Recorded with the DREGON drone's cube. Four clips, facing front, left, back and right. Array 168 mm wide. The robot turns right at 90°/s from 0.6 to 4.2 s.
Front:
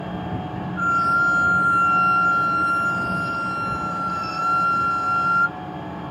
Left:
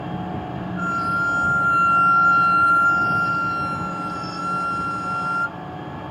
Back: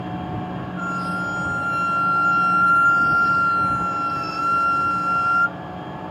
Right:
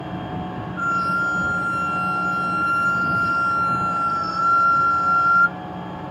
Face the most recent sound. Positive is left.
turn(degrees=-90)